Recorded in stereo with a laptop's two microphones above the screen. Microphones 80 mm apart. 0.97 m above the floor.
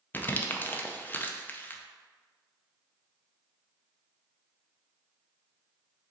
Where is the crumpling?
25° left (ahead or behind), 0.5 m.